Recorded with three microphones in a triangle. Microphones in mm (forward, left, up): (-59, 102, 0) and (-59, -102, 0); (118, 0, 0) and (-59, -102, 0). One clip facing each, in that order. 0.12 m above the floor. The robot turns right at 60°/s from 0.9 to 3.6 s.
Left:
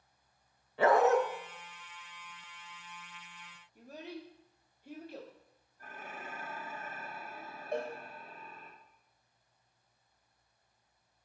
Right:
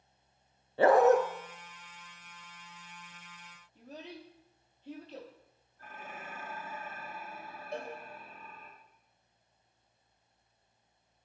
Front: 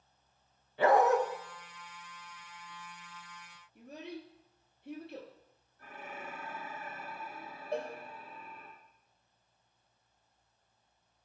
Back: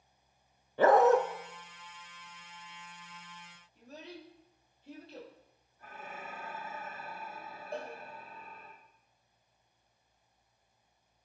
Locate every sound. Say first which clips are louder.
0.8 s a dog barking: right 4 dB, back 3 dB; 135° right, 0.7 m; by 1.2 s 120° right, 0.7 m
3.8 s a child speaking: left 1 dB, front 4 dB; 10° left, 2 m
5.8 s dishes clattering: even, front 1 dB; 15° left, 2.5 m
7.7 s a cowbell: left 4 dB, front 4 dB; 50° left, 3 m